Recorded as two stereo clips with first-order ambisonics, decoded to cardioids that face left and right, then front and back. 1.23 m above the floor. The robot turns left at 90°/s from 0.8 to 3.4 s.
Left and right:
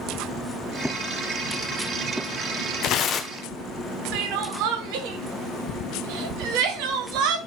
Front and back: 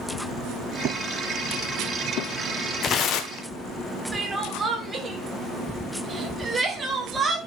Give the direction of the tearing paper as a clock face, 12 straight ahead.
10 o'clock.